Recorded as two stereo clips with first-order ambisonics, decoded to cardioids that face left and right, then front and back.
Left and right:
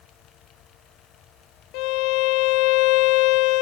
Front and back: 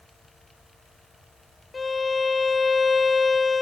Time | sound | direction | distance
1.7 | a violin | 75° left | ?